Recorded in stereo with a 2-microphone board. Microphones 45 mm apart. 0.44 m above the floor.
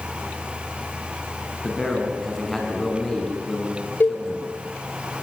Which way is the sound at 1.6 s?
5° left (ahead or behind).